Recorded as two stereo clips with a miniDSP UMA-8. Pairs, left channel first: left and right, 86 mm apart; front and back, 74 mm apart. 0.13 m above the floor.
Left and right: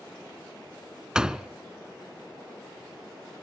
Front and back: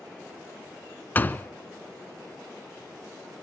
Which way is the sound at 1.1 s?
20° right.